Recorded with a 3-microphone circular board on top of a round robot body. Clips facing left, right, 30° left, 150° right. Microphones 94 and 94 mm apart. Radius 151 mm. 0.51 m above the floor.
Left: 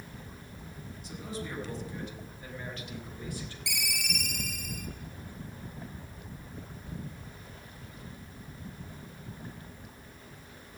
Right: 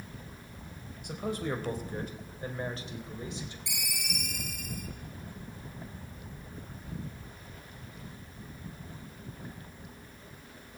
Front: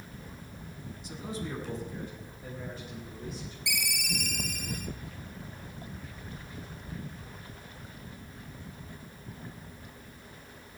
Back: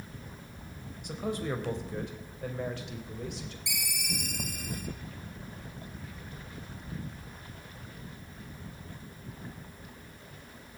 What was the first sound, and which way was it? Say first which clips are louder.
A man speaking: right 6 dB, back 5 dB; 120° right.